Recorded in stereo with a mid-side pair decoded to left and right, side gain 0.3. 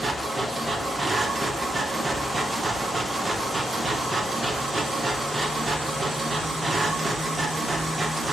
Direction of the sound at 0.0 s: 40° right.